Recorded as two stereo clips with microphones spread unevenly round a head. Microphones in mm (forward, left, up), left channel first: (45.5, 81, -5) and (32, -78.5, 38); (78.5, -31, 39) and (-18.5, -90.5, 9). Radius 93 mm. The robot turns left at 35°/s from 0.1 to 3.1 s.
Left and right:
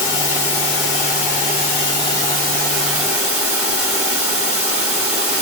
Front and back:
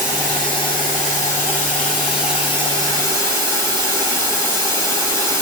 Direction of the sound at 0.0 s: 80° left.